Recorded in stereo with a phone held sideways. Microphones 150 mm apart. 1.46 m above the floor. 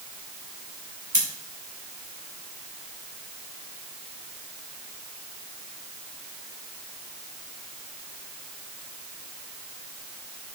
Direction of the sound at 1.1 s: 65° right (ahead or behind).